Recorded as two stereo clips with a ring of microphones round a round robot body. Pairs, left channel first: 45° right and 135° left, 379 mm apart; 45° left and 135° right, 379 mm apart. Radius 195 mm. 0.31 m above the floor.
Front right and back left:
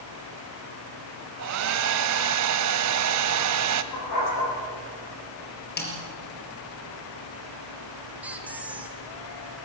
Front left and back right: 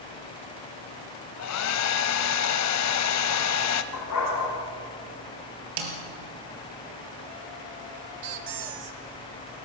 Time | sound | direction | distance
1.4 | a hair dryer | 90° left | 1.0 m
3.9 | a dog barking | 5° right | 6.5 m
5.8 | a snare drum | 110° right | 4 m
8.2 | a squeak | 140° right | 1.4 m